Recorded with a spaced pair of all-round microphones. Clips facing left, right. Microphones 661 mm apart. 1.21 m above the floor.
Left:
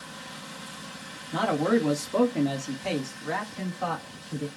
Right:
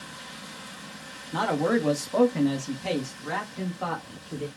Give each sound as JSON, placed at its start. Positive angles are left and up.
{"t": 1.3, "sound": "a man speaking", "side_deg": 15, "distance_m": 1.1}